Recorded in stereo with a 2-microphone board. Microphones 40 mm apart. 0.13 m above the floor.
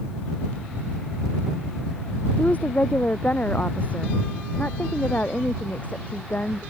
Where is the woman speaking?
40° left (ahead or behind); by 6.6 s 45° left (ahead or behind).